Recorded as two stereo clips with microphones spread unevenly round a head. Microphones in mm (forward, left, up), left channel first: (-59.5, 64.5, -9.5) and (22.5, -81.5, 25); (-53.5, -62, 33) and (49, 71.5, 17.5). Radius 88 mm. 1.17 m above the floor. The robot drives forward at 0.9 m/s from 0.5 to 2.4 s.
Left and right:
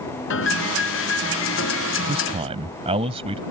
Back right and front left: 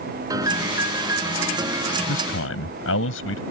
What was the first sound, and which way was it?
A piano, 125° left.